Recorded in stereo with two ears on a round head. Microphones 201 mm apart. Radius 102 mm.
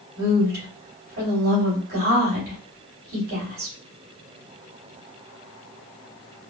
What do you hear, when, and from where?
0.2 s a woman speaking: 40° right (ahead or behind), 2.5 m